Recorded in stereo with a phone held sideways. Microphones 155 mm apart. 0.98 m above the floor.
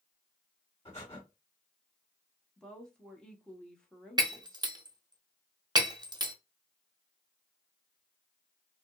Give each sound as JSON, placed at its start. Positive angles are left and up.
{"t": 0.8, "sound": "breathing", "side_deg": 35, "distance_m": 1.4}
{"t": 2.6, "sound": "a woman speaking", "side_deg": 5, "distance_m": 0.7}
{"t": 4.2, "sound": "breaking glass", "side_deg": -25, "distance_m": 0.6}